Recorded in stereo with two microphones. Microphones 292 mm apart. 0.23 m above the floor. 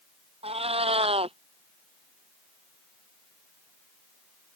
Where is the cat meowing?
20° right (ahead or behind).